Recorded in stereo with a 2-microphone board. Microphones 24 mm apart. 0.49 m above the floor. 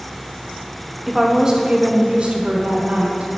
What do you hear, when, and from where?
1.1 s a woman speaking: 10° right (ahead or behind), 0.7 m; by 3.4 s 65° right (ahead or behind), 1.4 m